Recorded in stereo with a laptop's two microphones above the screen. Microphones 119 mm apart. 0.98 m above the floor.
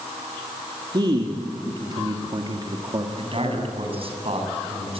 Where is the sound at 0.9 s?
40° right (ahead or behind), 2.5 m.